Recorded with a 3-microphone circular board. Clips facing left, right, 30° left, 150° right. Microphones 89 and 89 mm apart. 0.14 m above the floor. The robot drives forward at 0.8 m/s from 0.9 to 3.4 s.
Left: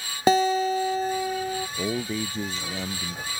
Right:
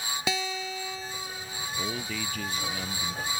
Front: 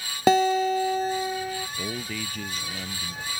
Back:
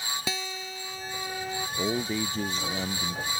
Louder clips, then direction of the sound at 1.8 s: Left 3 dB, back 5 dB; 145° left.